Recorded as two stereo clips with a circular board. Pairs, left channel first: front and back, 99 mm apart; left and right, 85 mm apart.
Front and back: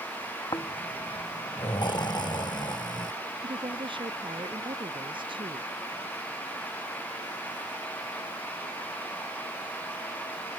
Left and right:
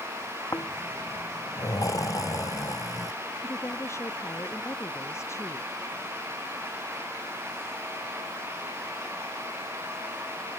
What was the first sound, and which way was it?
Snoring, 40° left.